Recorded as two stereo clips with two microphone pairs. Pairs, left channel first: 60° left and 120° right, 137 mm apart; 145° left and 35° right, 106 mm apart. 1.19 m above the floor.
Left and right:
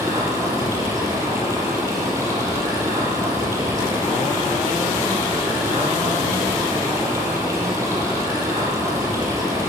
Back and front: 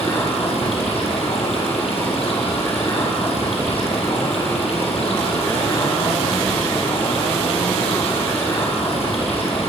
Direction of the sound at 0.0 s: 170° left.